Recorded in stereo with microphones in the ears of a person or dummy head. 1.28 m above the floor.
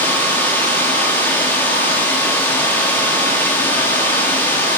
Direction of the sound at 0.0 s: 10° left (ahead or behind).